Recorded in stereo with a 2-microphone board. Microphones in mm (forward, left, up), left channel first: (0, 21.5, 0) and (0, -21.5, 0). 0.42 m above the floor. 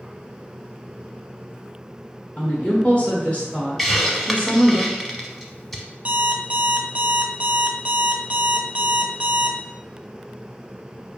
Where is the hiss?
5° left (ahead or behind), 0.7 m.